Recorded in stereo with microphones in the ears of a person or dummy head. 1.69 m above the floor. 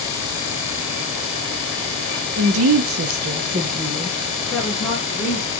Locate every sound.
2.4 s a woman speaking: 80° right, 0.8 m; by 5.5 s 20° left (ahead or behind), 1.6 m